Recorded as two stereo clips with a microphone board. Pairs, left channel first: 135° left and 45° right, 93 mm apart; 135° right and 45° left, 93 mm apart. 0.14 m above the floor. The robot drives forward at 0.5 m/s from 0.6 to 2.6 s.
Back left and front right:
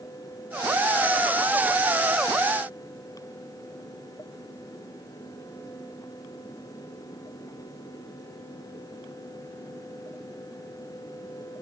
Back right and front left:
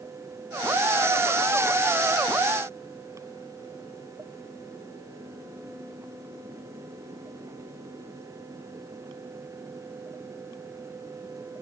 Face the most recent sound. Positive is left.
No sound to turn to.